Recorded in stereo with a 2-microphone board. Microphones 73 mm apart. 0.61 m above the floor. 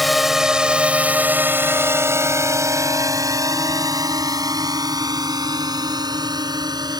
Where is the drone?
Centre (ahead or behind); by 7.0 s 75° right (ahead or behind).